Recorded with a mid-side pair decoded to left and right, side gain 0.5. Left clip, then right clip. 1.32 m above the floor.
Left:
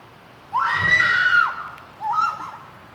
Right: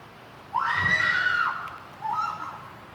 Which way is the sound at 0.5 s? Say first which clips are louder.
Left 6 dB; 40° left.